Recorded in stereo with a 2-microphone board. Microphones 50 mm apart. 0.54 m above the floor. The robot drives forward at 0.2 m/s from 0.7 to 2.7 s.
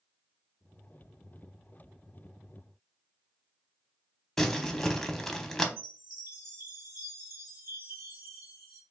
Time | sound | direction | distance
4.4 | crumpling | 10° left (ahead or behind) | 0.6 m
5.8 | a chime | 80° right | 2.5 m